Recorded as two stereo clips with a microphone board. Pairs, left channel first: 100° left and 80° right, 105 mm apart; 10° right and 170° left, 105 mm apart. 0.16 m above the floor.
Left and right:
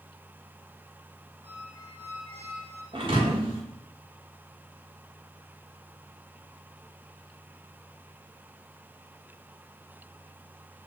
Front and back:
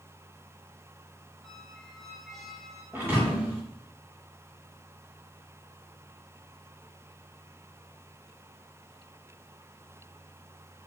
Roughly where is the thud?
Behind right.